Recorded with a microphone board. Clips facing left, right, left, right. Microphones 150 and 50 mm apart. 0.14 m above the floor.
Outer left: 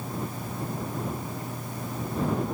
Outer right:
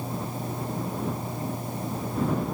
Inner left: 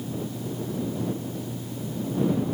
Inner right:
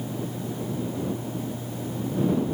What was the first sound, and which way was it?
Only background noise.